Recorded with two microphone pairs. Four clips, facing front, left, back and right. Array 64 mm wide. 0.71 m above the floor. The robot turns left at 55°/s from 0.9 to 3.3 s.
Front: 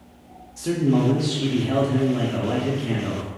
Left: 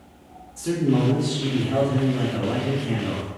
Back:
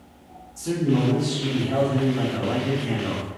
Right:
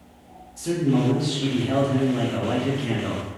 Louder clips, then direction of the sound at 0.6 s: Even, front 2 dB; 10° left.